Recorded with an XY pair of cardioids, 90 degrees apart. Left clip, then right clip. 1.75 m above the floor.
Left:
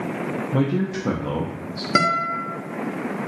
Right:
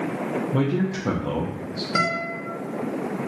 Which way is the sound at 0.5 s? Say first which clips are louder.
Left 3 dB; 10° left.